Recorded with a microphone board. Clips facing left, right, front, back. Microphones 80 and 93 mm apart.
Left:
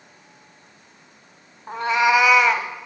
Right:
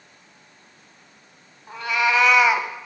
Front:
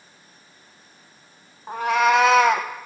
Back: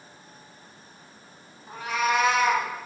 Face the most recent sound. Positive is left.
turn(degrees=-15)